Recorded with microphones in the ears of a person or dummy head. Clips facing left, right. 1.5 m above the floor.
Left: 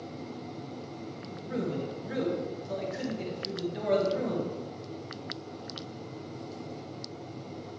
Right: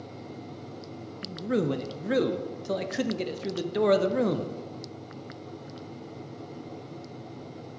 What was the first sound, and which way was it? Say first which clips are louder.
A man speaking: right 7 dB; 60° right (ahead or behind).